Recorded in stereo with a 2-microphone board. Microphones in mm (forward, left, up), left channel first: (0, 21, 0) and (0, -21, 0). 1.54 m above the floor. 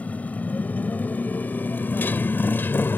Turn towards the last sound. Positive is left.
turn(degrees=60)  # may be behind; listen again after turning